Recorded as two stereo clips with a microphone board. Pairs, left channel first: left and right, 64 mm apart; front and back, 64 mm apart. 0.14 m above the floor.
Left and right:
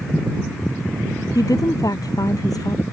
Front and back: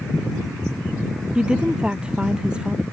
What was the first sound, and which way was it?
A woman speaking, 105° left.